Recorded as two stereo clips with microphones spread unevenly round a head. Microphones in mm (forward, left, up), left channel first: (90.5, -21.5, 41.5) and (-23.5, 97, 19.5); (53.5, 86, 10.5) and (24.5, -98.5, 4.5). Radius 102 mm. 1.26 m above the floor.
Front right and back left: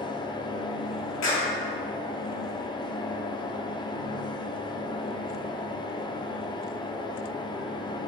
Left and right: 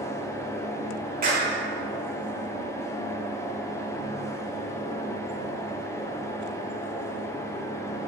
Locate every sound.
0.0 s a fan: 10° left, 0.7 m
1.2 s a clap: 55° right, 2.5 m